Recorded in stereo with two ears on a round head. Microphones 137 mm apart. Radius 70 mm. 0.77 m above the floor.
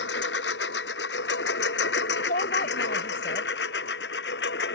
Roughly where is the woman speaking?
Left.